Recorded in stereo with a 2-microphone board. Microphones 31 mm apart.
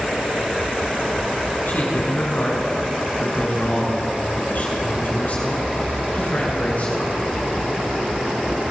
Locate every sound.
1.7 s a man speaking: 55° left (ahead or behind), 5 m; by 7.1 s 50° left (ahead or behind), 8.5 m